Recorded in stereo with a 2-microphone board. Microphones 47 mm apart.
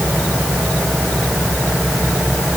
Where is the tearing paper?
No tearing paper in this recording.